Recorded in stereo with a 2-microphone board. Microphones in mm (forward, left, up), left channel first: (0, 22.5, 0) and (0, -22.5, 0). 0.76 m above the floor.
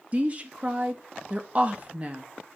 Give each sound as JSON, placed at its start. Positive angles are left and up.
{"t": 0.1, "sound": "a woman speaking", "side_deg": -30, "distance_m": 0.7}